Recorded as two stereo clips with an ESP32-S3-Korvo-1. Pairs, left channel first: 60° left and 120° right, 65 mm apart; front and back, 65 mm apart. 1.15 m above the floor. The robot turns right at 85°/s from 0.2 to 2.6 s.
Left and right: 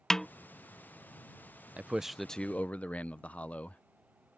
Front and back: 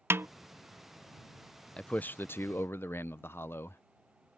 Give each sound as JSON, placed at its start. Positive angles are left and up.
{"t": 0.1, "sound": "a snare drum", "azimuth_deg": 140}
{"t": 1.8, "sound": "a man speaking", "azimuth_deg": -65}